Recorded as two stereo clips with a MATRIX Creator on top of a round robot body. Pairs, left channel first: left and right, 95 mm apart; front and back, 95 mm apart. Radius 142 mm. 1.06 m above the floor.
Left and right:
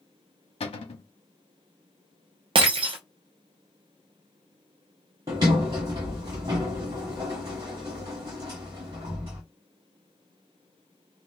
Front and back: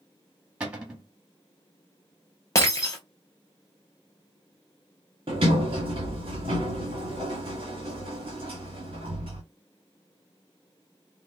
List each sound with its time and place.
0.6 s a cupboard door: 100° left, 1.6 m
2.5 s breaking glass: 60° right, 0.5 m
5.3 s a sliding door: 140° right, 1.0 m